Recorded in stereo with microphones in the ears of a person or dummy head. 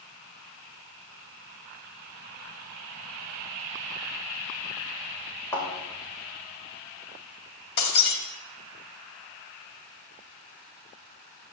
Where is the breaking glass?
60° left (ahead or behind), 1.6 m.